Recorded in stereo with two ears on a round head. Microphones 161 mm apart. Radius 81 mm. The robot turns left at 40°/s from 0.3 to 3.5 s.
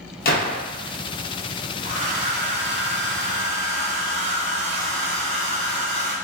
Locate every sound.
0.2 s a gunshot: 55° left (ahead or behind), 0.8 m; by 0.6 s 60° left (ahead or behind), 0.8 m
1.8 s a hair dryer: 40° right, 0.9 m; by 6.1 s 105° right, 0.9 m